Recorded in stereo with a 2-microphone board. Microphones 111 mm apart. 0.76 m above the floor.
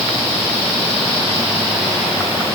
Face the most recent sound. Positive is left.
No sound to turn to.